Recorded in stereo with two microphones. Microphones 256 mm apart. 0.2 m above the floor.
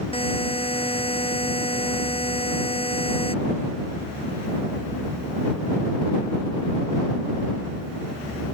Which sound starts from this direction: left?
A buzzer, at 0.1 s.